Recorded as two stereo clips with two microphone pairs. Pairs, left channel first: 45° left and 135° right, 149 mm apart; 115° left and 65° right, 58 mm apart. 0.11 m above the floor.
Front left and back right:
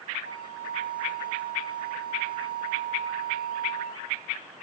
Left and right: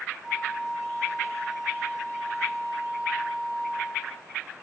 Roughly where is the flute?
Behind right.